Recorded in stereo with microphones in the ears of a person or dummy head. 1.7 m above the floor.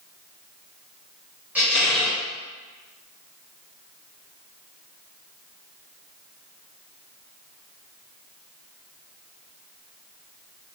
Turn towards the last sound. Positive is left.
turn(degrees=-10)  # may be behind; listen again after turning